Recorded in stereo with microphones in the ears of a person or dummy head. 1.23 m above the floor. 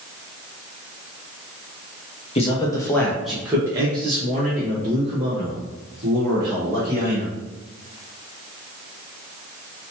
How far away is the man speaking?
About 1.0 m.